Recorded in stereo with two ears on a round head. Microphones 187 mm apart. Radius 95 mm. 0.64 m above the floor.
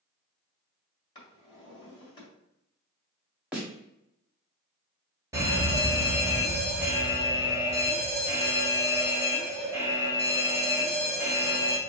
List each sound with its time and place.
1.1 s a drawer: 20° left (ahead or behind), 2 m
3.5 s a snare drum: 5° right (ahead or behind), 1.3 m
5.3 s a fire alarm: 15° right (ahead or behind), 1.8 m